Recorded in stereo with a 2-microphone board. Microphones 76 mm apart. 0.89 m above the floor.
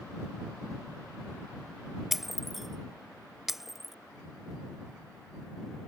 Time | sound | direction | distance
2.1 | breaking glass | 5° right (ahead or behind) | ?